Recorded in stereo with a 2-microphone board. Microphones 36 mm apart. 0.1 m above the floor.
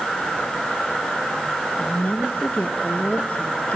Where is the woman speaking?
40° left (ahead or behind), 2 m.